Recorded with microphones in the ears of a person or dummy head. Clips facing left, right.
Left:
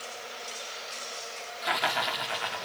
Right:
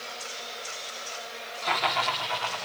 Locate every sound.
1.6 s laughter: 10° left (ahead or behind), 5 m; by 2.6 s 20° left (ahead or behind), 5.5 m